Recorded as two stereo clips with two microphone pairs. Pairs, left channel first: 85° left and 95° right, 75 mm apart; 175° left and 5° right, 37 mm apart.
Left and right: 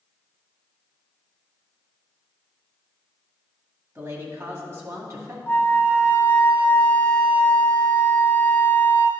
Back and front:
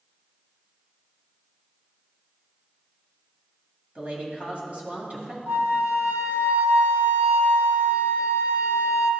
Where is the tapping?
I don't hear tapping.